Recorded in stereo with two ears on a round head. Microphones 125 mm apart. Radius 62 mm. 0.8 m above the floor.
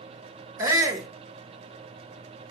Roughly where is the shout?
Right.